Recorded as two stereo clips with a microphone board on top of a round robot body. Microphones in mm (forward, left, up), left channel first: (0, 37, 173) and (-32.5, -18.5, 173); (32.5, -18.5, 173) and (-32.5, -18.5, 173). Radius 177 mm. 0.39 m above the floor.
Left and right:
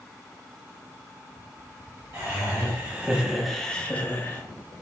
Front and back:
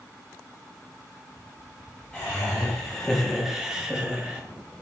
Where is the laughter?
75° right, 1.3 m; by 4.4 s 110° left, 1.1 m.